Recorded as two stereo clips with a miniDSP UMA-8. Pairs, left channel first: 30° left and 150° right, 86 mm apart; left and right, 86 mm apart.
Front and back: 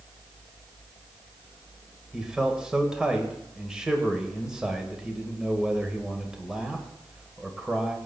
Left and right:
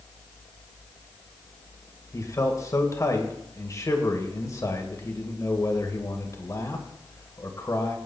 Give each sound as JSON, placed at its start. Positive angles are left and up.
{"t": 2.1, "sound": "a man speaking", "azimuth_deg": 130, "distance_m": 2.0}